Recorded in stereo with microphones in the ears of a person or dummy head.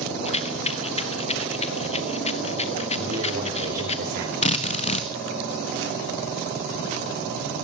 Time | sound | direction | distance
0.2 | a rattle | 30° left (ahead or behind) | 1.1 m
3.0 | a man speaking | 50° right (ahead or behind) | 4.5 m
4.4 | a drill | 35° left (ahead or behind) | 1.8 m